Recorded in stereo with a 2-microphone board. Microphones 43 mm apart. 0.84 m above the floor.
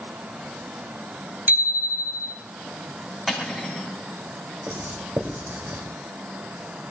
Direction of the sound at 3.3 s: Centre (ahead or behind).